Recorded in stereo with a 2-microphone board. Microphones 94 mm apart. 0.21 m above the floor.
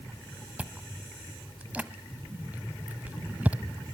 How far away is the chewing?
About 0.7 m.